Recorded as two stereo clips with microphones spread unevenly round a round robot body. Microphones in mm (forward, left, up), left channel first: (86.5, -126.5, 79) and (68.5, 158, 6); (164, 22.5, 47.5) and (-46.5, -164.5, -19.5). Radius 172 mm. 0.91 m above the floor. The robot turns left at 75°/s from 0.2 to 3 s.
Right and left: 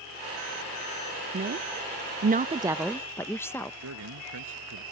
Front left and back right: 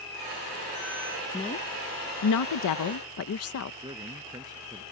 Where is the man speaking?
140° left.